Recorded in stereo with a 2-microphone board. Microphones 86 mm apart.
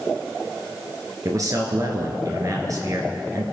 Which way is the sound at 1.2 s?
45° right (ahead or behind).